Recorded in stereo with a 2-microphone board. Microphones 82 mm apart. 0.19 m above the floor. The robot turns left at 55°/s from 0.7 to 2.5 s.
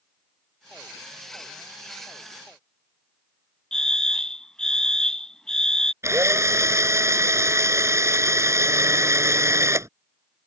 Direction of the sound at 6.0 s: 35° right (ahead or behind).